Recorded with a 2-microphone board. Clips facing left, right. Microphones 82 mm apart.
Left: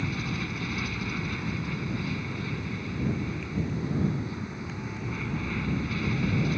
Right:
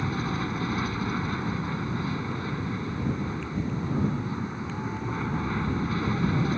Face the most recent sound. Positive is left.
turn(degrees=-35)  # may be behind; listen again after turning